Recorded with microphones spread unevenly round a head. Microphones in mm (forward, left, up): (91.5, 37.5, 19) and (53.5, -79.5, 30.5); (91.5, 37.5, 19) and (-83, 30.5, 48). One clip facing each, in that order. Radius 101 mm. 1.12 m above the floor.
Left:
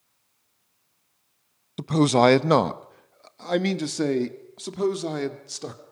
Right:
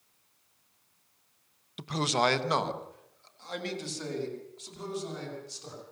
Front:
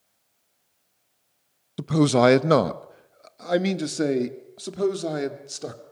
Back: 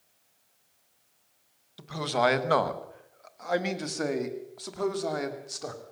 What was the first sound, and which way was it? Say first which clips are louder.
A man speaking: left 10 dB, front 10 dB; 25° left.